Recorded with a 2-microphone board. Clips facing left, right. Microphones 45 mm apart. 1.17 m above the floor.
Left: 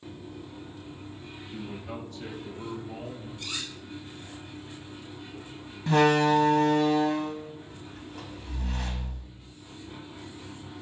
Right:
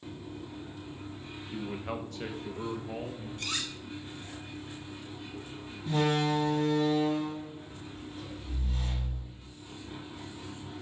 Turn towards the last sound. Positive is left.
turn(degrees=75)  # may be behind; listen again after turning